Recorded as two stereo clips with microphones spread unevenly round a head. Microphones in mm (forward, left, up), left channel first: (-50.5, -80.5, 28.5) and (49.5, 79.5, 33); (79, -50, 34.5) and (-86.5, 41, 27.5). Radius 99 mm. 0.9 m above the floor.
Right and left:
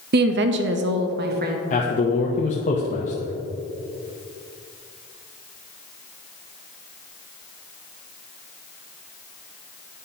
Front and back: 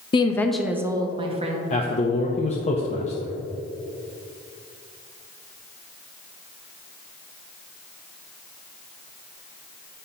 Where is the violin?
No violin in this recording.